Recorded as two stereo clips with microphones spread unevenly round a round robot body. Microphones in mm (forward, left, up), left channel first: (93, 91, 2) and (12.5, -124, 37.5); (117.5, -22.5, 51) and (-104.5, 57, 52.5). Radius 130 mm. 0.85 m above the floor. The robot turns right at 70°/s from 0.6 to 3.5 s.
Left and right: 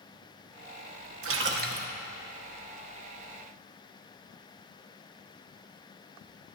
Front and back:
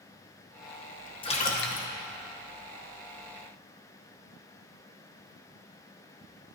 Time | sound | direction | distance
1.2 | a splash | 85° right | 1.5 m